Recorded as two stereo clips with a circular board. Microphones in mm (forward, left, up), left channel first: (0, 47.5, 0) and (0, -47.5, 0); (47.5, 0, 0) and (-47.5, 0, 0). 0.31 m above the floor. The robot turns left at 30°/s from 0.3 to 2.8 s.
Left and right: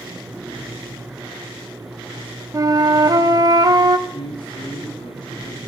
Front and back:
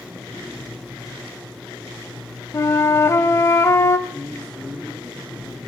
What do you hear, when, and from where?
2.5 s a flute: 45° right, 0.6 m; by 4.0 s 55° right, 0.6 m
4.1 s a man speaking: 80° left, 2 m